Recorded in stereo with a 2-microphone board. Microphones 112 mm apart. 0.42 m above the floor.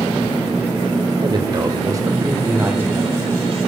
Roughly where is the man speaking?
Right.